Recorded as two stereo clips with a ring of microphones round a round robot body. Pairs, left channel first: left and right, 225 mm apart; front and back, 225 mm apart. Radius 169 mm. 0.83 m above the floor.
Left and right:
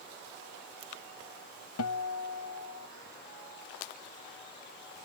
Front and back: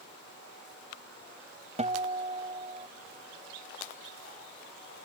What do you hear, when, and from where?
1.8 s a guitar: 120° left